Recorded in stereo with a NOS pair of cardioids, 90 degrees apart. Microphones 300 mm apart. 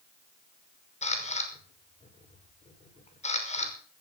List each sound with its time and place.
1.0 s a camera shutter: 20° left, 5.5 m